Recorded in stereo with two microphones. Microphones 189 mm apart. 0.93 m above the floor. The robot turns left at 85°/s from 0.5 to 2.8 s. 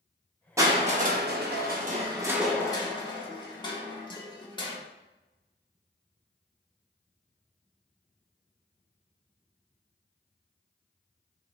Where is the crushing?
20° right, 0.7 m; by 4.8 s 155° left, 0.7 m.